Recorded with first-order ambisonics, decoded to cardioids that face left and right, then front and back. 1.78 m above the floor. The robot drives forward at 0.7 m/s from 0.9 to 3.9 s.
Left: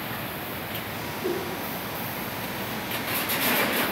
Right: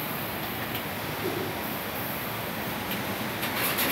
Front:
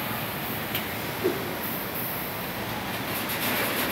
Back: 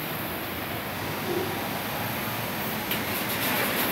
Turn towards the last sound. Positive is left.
turn(degrees=15)